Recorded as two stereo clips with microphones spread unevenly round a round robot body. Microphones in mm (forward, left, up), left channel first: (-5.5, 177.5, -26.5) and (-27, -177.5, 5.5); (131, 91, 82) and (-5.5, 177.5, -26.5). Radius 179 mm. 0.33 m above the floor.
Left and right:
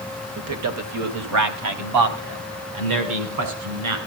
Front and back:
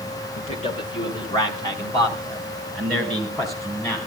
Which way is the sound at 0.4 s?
115° right.